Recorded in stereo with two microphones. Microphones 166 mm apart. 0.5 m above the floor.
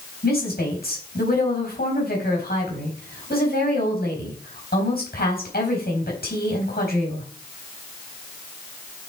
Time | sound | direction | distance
0.2 | a woman speaking | 70° left (ahead or behind) | 4 m